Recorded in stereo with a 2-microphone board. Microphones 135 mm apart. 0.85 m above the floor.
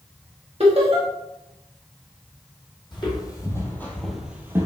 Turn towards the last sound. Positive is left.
turn(degrees=-25)  # may be behind; listen again after turning